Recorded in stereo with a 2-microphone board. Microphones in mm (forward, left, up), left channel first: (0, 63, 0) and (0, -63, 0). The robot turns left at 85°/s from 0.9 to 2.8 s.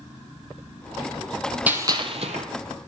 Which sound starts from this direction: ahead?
A gunshot, at 1.7 s.